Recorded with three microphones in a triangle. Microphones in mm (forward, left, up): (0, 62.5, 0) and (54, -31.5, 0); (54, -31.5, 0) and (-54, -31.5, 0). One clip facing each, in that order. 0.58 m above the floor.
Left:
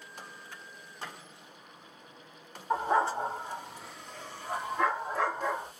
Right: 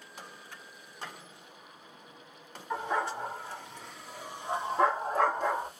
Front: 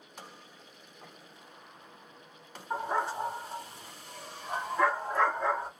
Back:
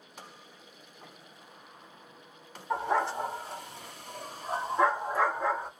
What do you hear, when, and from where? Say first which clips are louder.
2.7 s a dog barking: left 5 dB, back 3 dB; 170° left, 1.7 m; by 5.7 s 85° right, 1.6 m